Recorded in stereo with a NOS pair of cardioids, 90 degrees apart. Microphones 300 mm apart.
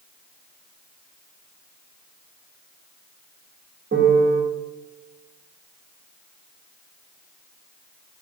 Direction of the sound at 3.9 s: 35° right.